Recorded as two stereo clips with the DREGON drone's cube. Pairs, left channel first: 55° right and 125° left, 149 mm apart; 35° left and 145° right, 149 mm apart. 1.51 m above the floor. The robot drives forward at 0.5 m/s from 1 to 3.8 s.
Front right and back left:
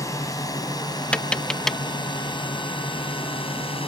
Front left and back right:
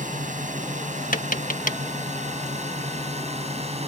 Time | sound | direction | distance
0.0 | a drone | 120° right | ?
1.1 | tapping | 25° left | ?